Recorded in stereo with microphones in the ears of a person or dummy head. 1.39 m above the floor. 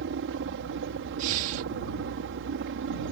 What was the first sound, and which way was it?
A helicopter, 65° right (ahead or behind).